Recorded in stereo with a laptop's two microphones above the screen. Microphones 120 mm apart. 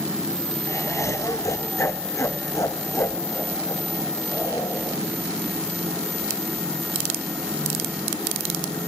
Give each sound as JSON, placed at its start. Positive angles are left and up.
{"t": 0.7, "sound": "laughter", "side_deg": 25, "distance_m": 1.0}